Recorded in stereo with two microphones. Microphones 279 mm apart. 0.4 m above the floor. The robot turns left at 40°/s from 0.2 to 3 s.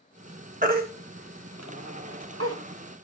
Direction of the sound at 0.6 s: 30° right (ahead or behind).